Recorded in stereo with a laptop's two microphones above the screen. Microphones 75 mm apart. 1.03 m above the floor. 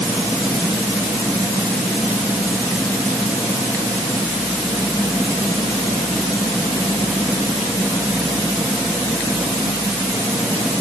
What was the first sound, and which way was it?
Only background noise.